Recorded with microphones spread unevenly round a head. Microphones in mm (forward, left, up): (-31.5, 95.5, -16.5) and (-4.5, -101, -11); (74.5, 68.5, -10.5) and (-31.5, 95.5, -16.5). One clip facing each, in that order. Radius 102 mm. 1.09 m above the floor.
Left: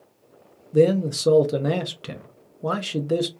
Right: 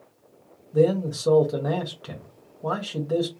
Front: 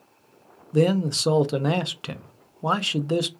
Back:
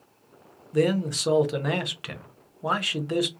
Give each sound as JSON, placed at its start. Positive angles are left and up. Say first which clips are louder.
{"t": 0.7, "sound": "a man speaking", "louder": "left 3 dB, front 2 dB", "azimuth_deg": 45, "distance_m": 0.5}